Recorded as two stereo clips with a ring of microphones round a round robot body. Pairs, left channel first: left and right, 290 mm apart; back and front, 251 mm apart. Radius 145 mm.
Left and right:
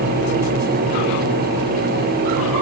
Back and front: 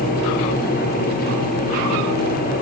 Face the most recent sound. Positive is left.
No sound to turn to.